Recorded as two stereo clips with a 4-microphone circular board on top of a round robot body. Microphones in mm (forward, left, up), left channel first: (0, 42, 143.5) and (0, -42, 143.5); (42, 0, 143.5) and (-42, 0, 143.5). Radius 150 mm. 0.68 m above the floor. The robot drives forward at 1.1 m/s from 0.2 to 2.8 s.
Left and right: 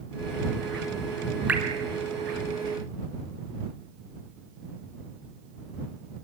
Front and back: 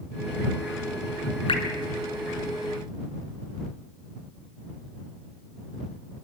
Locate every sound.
1.5 s dripping: 15° right, 2.5 m; by 1.6 s 20° right, 2 m